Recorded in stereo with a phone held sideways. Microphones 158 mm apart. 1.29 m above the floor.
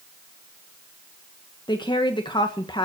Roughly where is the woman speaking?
Left.